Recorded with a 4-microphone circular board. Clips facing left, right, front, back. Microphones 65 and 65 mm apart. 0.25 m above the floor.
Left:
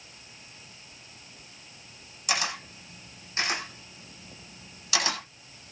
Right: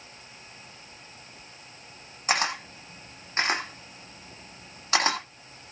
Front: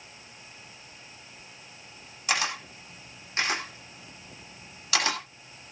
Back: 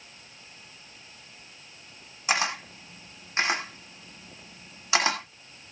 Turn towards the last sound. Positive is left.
turn(degrees=-120)